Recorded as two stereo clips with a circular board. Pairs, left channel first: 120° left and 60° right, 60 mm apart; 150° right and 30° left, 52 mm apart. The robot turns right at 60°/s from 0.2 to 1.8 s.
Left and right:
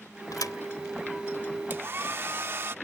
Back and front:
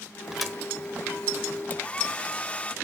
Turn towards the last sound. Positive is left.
turn(degrees=-95)